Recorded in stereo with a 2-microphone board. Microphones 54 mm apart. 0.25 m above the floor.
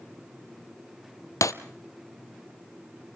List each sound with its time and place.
1.4 s breaking glass: 70° left (ahead or behind), 0.6 m